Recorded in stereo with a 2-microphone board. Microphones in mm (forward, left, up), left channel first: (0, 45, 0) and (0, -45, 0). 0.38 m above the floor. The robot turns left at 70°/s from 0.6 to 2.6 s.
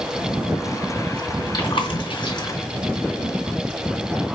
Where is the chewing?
60° left (ahead or behind), 3 m; by 2.5 s 45° left (ahead or behind), 3 m.